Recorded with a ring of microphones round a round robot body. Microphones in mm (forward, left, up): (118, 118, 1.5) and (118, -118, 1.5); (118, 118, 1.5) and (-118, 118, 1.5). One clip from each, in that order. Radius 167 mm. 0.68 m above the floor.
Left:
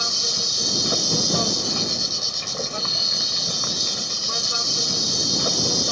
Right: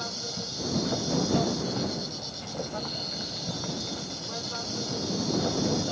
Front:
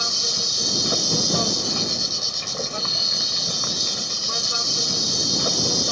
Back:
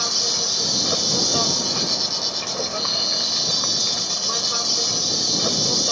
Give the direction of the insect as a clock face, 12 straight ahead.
8 o'clock.